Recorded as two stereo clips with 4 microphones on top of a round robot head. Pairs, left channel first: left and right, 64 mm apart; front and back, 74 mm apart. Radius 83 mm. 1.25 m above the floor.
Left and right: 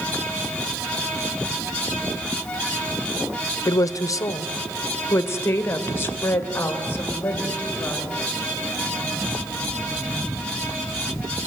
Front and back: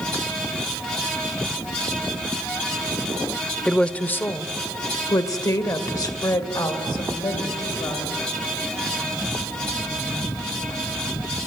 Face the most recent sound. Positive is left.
turn(degrees=30)